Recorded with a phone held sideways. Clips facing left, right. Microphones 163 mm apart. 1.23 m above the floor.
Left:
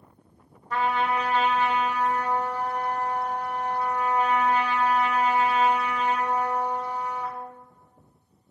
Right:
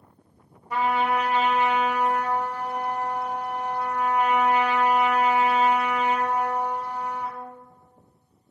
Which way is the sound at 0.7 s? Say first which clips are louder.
Right 2 dB; 10° right (ahead or behind).